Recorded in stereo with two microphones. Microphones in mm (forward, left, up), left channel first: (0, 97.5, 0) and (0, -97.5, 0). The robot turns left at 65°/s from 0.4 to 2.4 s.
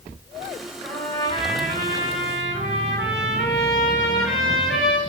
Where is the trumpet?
170° right, 4.5 m; by 5.0 s 85° left, 4.5 m.